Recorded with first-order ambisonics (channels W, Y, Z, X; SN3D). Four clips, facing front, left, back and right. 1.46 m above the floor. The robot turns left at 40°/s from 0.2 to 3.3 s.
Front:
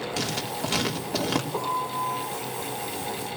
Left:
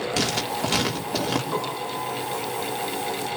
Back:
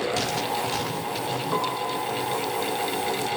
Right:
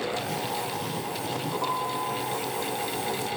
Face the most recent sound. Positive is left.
turn(degrees=85)